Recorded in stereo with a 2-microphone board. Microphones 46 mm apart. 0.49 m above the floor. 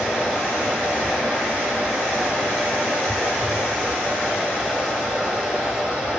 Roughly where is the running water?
Centre.